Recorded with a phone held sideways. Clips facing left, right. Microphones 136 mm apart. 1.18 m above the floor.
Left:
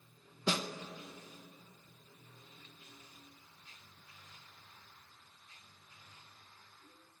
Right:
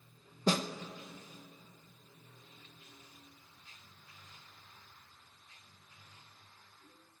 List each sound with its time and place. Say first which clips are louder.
0.5 s a snare drum: right 4 dB; 40° right (ahead or behind), 1.0 m